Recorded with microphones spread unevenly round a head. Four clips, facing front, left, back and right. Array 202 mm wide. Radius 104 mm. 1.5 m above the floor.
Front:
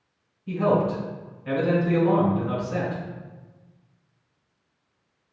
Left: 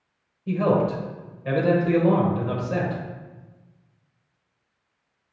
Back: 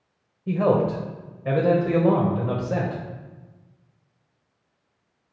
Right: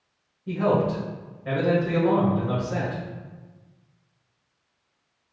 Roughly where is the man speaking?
Behind.